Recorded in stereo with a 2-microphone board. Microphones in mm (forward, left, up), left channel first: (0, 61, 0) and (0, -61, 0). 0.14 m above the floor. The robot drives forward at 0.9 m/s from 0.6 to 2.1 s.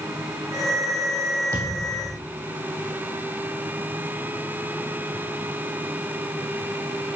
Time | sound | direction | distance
1.5 | a thud | 25° right (ahead or behind) | 2.5 m